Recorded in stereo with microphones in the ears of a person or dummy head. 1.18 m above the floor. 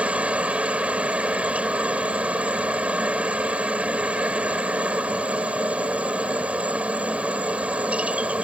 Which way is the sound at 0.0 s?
5° right (ahead or behind).